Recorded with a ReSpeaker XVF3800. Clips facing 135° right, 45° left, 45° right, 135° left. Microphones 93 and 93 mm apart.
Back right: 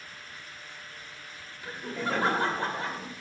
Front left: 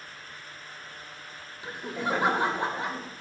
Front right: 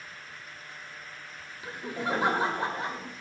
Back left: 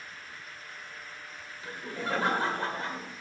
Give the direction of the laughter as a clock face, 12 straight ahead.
12 o'clock.